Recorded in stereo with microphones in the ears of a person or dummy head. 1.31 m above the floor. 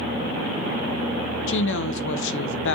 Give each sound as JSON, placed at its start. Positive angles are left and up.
{"t": 1.5, "sound": "a woman speaking", "side_deg": 70, "distance_m": 0.9}